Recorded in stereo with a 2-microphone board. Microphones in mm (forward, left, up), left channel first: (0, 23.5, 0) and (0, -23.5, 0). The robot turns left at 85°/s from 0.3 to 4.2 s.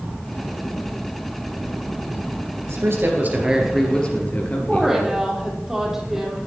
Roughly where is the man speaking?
Right.